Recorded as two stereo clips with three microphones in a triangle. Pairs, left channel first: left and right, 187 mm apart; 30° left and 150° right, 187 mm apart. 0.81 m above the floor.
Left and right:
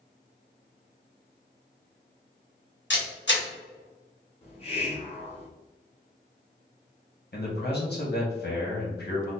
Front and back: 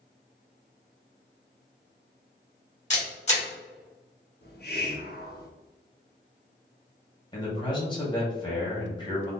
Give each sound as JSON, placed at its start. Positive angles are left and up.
{"t": 2.9, "sound": "a camera shutter", "azimuth_deg": 80, "distance_m": 1.9}
{"t": 4.4, "sound": "a hiss", "azimuth_deg": 40, "distance_m": 0.9}
{"t": 7.3, "sound": "a man speaking", "azimuth_deg": 95, "distance_m": 1.4}